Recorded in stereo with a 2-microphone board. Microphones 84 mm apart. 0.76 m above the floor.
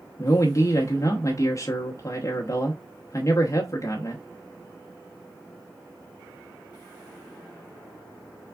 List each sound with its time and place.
0.2 s a man speaking: 40° left (ahead or behind), 0.8 m